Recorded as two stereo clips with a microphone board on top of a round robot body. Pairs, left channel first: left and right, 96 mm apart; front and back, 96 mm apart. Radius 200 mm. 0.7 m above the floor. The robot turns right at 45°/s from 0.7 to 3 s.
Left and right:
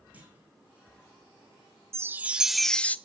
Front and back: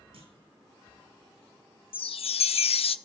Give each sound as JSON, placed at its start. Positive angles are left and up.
{"t": 0.1, "sound": "a clunk", "azimuth_deg": -160, "distance_m": 5.5}
{"t": 1.9, "sound": "a chime", "azimuth_deg": -30, "distance_m": 0.5}